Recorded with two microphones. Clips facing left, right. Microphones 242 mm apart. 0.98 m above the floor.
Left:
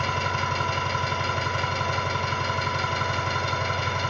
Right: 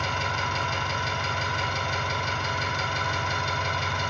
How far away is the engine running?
About 1.4 m.